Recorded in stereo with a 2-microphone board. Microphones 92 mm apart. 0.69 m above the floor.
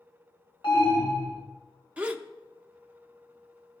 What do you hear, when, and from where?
0.6 s an alarm: 70° left (ahead or behind), 3.5 m
2.0 s a gasp: 15° right (ahead or behind), 0.5 m